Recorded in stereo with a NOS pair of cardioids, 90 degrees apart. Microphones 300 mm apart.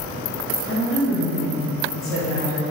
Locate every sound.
0.7 s a woman speaking: 45° left, 1.3 m